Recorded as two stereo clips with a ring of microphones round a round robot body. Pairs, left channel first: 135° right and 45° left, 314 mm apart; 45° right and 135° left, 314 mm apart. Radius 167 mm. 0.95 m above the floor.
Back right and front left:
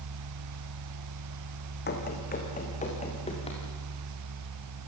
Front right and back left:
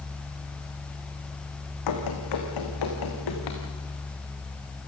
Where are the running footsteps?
75° right, 4 m; by 3.6 s 60° right, 6 m.